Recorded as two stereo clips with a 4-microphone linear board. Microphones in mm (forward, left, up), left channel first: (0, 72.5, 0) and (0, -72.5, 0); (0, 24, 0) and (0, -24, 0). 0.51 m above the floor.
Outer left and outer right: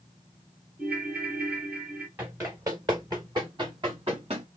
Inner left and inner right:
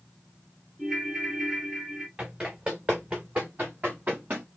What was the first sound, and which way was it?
A ringtone, 10° right (ahead or behind).